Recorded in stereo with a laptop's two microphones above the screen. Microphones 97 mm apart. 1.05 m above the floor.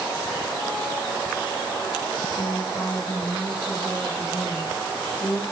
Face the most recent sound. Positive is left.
turn(degrees=25)  # may be behind; listen again after turning